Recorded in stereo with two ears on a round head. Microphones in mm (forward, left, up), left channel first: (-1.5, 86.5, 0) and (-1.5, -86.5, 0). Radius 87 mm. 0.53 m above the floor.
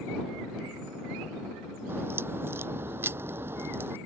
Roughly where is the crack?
Centre.